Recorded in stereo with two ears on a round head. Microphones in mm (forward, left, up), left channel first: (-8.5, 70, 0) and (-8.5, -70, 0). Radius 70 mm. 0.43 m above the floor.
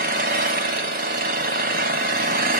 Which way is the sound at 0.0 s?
60° right (ahead or behind).